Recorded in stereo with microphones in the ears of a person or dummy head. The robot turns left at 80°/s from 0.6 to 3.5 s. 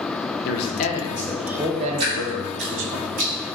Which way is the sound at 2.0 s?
30° right (ahead or behind).